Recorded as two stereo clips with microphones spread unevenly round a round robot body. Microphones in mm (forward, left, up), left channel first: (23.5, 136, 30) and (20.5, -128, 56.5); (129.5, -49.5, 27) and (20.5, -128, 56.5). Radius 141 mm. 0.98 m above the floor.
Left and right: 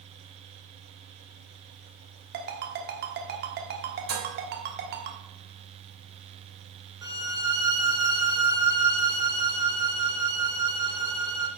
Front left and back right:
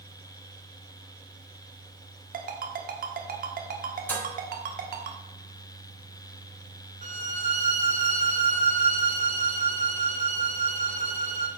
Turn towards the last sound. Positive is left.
turn(degrees=-165)